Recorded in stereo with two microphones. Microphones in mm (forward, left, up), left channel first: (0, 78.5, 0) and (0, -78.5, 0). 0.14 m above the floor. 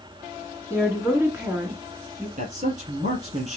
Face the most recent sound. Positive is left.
turn(degrees=-55)  # may be behind; listen again after turning